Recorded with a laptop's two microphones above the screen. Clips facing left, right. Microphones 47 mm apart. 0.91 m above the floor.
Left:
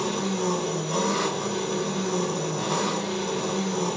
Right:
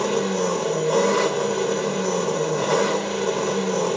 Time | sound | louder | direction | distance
0.0 | an engine running | right 5 dB | 75° right (ahead or behind) | 0.9 m